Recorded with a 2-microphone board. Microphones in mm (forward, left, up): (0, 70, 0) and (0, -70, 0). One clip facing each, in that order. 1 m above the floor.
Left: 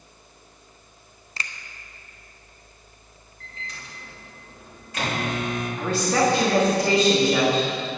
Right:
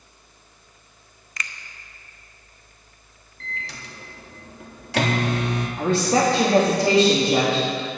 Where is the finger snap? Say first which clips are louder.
Even; 30° left (ahead or behind), 0.6 m.